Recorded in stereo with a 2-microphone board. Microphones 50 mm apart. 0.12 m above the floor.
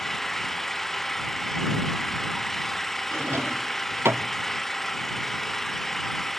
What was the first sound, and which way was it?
An engine running, 5° left (ahead or behind).